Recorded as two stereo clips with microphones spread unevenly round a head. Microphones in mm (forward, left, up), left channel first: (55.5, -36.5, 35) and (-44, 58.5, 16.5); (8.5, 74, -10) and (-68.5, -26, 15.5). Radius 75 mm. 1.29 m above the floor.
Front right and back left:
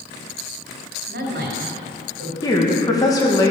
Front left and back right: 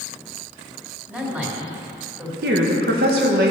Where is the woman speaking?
110° right, 1.6 m.